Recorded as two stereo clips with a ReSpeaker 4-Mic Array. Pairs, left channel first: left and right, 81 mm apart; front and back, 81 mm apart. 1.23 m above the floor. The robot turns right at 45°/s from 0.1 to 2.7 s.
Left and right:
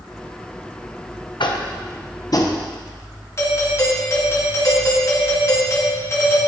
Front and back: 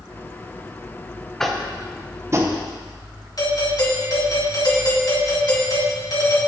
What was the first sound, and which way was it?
Tapping, 85° left.